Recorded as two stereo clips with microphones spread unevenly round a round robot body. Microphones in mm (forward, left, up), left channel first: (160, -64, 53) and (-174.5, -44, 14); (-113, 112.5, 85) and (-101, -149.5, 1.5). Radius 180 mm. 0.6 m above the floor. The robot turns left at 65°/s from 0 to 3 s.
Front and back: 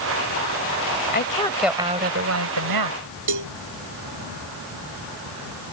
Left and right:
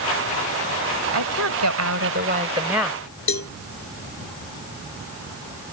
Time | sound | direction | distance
1.1 | a woman speaking | 60° right | ?
3.3 | a cowbell | 130° left | ?